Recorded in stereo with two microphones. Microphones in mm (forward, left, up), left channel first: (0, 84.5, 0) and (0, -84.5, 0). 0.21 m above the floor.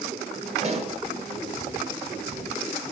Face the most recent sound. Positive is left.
turn(degrees=-40)  # may be behind; listen again after turning